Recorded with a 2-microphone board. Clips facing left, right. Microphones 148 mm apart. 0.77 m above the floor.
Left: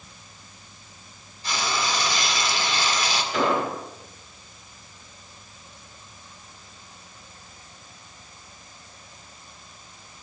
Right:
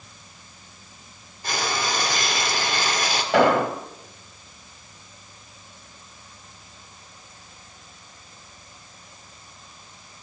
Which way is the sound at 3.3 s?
75° right (ahead or behind).